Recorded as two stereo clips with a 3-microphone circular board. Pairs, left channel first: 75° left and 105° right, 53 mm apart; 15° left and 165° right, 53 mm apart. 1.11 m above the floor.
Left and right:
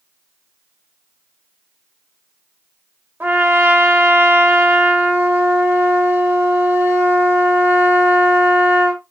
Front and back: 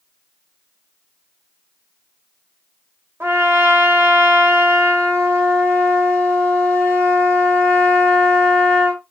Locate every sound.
3.2 s a trumpet: 140° right, 1.5 m